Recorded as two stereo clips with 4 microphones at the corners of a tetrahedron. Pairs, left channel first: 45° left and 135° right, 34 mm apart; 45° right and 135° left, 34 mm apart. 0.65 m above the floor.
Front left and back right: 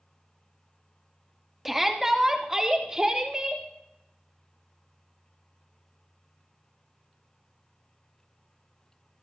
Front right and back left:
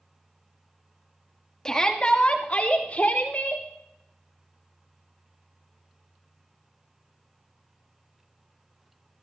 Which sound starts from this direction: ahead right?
A shout, at 1.6 s.